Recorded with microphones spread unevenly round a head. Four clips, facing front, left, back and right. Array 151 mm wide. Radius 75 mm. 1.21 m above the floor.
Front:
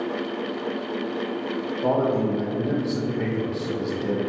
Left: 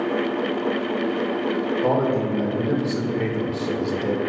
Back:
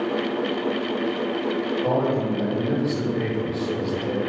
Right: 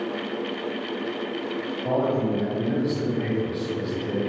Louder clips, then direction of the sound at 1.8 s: Left 1 dB, front 3 dB; 50° left.